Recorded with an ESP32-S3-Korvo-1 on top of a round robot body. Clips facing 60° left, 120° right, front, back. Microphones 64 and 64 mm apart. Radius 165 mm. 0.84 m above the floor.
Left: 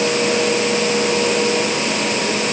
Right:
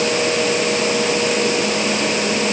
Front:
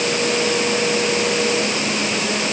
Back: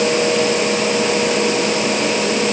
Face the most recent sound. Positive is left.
No sound to turn to.